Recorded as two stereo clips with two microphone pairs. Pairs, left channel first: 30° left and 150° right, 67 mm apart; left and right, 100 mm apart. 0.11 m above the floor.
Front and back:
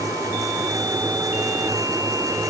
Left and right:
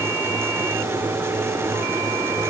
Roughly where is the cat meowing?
I don't hear a cat meowing.